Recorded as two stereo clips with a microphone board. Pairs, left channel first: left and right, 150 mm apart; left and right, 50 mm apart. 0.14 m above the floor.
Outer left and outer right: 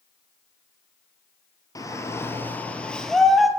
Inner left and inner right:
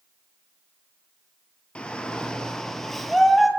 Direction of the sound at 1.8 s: 25° left (ahead or behind).